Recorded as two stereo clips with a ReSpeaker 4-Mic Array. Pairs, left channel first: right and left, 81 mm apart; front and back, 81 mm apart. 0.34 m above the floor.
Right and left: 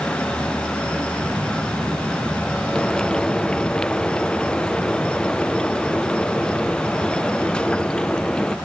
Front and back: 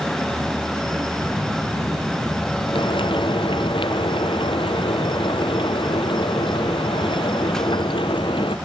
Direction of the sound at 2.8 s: 10° right.